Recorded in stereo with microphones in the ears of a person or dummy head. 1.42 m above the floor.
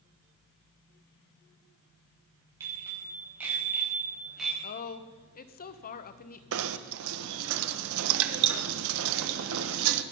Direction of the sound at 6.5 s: 80° right.